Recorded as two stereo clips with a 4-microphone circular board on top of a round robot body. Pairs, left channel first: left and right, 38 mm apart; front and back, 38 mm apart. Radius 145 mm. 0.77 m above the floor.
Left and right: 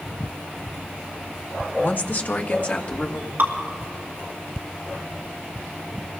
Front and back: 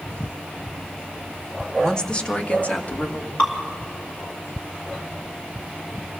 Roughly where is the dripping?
Ahead right.